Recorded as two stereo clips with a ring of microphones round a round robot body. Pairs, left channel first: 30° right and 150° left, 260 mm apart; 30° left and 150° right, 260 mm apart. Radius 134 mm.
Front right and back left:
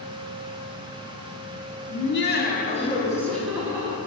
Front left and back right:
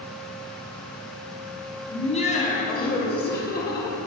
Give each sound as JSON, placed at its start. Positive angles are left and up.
{"t": 1.9, "sound": "laughter", "azimuth_deg": -35, "distance_m": 1.1}